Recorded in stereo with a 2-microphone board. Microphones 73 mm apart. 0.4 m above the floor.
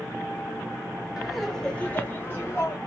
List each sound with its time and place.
1.2 s laughter: 5° right (ahead or behind), 0.9 m; by 2.8 s 45° left (ahead or behind), 1.3 m